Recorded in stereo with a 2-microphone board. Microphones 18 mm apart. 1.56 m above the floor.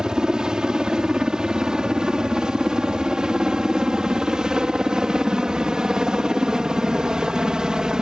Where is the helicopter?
50° right (ahead or behind).